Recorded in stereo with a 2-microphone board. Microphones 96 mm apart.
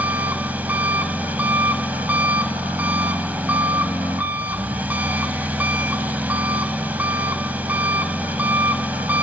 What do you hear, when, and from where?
0.0 s an engine running: 20° right (ahead or behind), 0.9 m